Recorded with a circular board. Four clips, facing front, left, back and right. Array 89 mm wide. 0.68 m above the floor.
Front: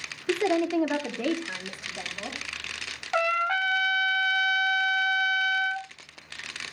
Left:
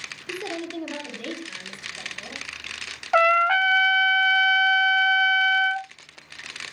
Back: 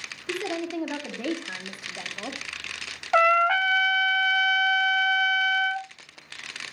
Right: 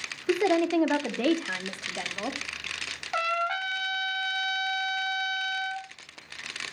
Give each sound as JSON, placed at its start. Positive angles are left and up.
{"t": 0.3, "sound": "a woman speaking", "azimuth_deg": -55, "distance_m": 2.0}
{"t": 3.1, "sound": "a trumpet", "azimuth_deg": 125, "distance_m": 0.8}